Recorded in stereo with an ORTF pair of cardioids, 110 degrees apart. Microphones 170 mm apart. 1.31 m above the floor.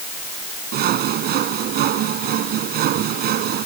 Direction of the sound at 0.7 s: 70° right.